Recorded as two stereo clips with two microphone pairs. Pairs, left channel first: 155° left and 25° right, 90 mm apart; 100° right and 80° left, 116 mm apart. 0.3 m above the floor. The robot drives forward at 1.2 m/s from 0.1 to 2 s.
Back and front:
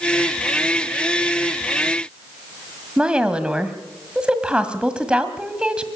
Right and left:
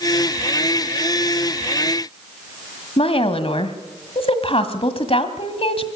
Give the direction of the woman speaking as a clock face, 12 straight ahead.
3 o'clock.